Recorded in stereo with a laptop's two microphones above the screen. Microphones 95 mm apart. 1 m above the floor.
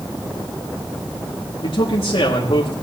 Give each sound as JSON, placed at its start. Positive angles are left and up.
{"t": 1.6, "sound": "a man speaking", "side_deg": 75, "distance_m": 2.0}